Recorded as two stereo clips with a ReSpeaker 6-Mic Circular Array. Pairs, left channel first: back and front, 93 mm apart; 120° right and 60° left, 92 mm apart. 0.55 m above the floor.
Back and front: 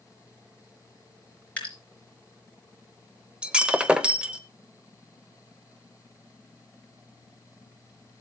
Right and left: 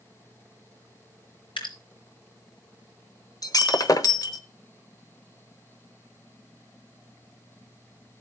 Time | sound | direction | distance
1.6 | dripping | 105° right | 4.5 m
3.4 | breaking glass | 80° right | 1.0 m